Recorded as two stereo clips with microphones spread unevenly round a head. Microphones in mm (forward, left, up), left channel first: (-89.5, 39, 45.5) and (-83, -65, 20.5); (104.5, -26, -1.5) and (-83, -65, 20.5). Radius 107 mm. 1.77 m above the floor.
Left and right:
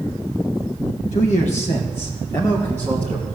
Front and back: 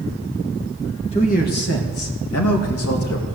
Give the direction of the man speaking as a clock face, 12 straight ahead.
9 o'clock.